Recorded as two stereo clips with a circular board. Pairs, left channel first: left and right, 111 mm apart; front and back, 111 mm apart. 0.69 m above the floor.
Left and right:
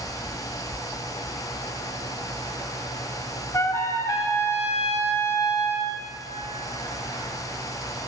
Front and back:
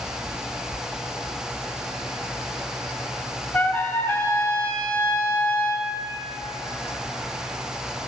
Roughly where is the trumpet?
Ahead left.